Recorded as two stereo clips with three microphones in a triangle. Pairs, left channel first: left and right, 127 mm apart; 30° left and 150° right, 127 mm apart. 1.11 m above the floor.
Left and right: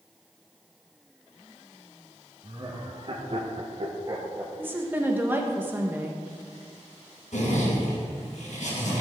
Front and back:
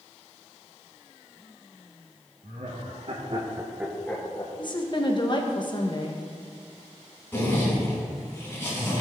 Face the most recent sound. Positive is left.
turn(degrees=100)